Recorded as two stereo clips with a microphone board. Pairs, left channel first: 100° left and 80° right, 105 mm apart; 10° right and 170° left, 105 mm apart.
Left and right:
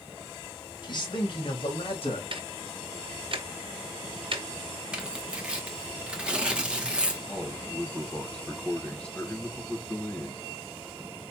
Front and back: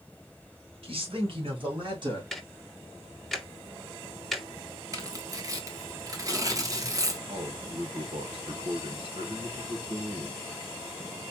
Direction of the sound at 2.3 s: 95° right.